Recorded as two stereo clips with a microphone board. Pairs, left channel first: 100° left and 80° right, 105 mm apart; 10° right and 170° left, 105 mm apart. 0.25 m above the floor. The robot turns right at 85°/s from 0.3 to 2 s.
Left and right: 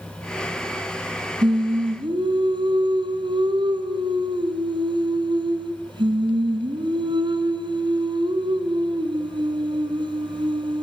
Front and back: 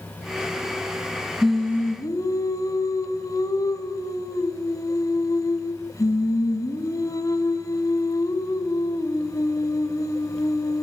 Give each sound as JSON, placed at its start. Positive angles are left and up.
{"t": 1.4, "sound": "singing", "azimuth_deg": -110, "distance_m": 3.0}